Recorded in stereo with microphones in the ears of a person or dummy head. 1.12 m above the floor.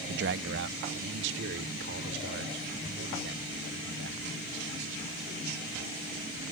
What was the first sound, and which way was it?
A man speaking, 60° right (ahead or behind).